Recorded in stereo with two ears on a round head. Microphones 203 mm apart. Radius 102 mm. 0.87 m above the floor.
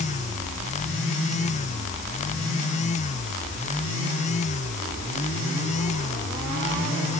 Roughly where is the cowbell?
I don't hear a cowbell.